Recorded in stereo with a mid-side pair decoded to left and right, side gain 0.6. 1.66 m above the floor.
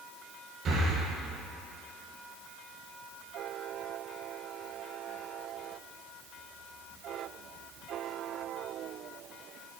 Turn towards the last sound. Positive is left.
turn(degrees=-45)